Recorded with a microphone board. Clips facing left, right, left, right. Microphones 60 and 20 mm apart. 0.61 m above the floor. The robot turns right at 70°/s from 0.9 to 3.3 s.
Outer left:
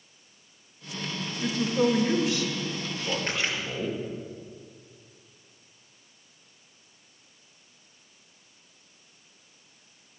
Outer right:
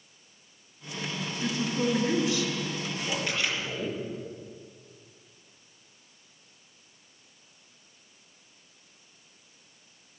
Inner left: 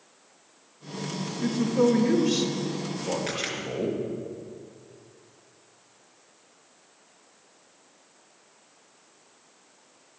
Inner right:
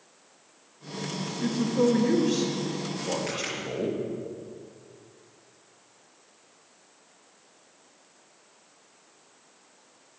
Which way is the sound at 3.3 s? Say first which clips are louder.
Even, inner left 1 dB; 35° left (ahead or behind).